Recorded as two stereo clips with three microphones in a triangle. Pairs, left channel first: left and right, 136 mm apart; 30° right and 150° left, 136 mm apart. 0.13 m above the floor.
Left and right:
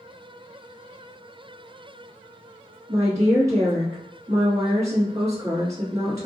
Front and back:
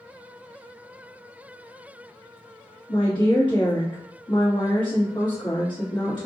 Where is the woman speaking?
40° right, 2.0 m.